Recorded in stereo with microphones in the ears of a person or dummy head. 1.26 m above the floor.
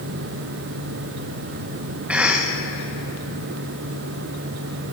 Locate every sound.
2.1 s a cough: 5° right (ahead or behind), 0.8 m